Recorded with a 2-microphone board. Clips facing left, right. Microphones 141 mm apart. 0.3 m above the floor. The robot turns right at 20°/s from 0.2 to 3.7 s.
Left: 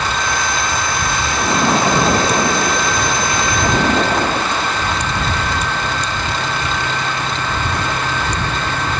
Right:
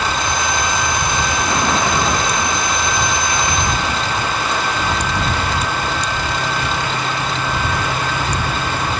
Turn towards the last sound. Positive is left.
turn(degrees=65)